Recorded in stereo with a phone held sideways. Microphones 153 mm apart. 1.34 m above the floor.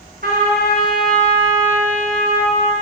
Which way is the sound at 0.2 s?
75° right (ahead or behind).